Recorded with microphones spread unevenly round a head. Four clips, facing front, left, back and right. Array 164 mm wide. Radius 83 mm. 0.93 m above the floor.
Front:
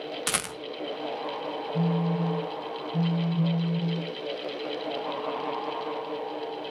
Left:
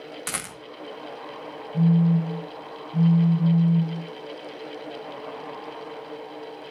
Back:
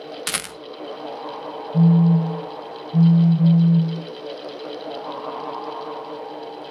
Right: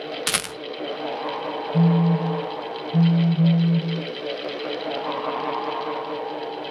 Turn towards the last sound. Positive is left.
turn(degrees=-155)